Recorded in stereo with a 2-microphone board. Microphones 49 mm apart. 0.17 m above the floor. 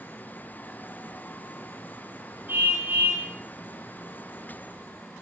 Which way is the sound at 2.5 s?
45° right (ahead or behind).